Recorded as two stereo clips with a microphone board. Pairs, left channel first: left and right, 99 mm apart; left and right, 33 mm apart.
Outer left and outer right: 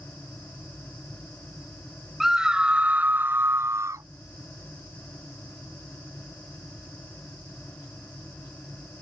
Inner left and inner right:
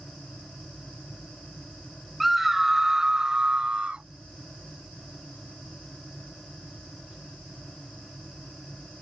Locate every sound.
2.2 s a scream: 5° right (ahead or behind); by 4.1 s 35° right (ahead or behind)